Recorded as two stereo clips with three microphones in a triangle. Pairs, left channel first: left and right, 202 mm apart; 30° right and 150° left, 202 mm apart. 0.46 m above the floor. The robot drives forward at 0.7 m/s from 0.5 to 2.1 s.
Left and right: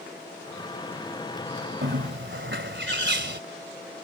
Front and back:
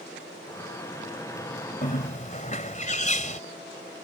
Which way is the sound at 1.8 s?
75° right.